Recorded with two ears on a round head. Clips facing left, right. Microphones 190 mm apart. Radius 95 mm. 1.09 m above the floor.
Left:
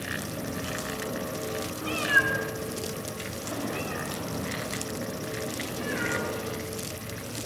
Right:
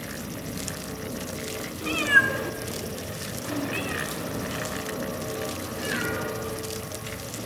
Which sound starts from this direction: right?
A cat meowing, at 1.8 s.